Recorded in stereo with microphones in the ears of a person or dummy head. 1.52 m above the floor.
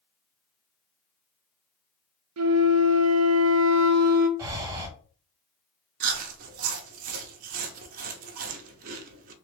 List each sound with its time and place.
2.4 s a flute: 75° right (ahead or behind), 0.5 m
4.4 s breathing: 20° right (ahead or behind), 0.9 m
6.0 s chewing: 50° right (ahead or behind), 0.7 m